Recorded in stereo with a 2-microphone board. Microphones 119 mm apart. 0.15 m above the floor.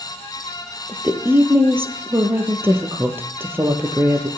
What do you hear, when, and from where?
0.9 s a woman speaking: 20° right (ahead or behind), 3 m